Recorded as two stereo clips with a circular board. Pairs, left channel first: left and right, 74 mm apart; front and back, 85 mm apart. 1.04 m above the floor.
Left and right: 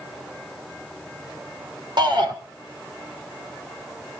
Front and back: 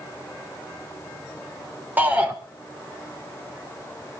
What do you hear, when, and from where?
2.0 s a shout: 110° right, 3 m